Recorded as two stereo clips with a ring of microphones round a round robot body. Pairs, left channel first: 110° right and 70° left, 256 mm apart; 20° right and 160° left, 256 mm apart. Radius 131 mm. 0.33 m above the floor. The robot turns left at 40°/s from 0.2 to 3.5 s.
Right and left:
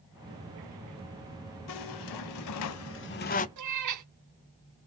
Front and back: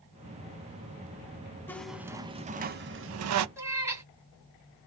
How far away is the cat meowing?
About 1.8 m.